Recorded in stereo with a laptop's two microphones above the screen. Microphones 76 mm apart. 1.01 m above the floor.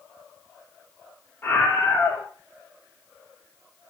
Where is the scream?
25° left (ahead or behind), 3 m.